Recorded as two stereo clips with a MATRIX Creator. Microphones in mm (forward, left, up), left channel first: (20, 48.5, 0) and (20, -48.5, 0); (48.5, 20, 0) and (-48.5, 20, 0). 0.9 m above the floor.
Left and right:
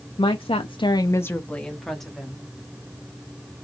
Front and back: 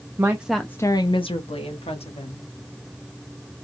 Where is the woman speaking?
120° left, 0.7 m; by 2.5 s 5° right, 1.8 m.